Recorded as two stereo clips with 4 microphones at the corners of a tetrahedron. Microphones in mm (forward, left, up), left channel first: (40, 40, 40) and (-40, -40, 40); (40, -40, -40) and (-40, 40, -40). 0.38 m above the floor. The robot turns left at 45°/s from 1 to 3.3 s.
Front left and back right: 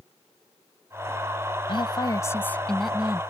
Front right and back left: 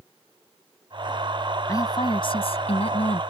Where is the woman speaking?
10° left; by 3.2 s 60° right.